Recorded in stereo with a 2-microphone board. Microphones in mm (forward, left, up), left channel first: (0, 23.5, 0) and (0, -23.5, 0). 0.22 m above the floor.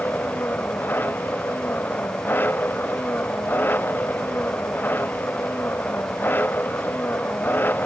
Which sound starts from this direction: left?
An engine running, at 0.0 s.